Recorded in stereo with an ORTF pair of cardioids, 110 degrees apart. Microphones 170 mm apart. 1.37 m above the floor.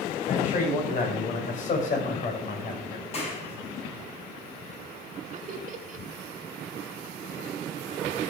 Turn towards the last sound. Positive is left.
turn(degrees=-40)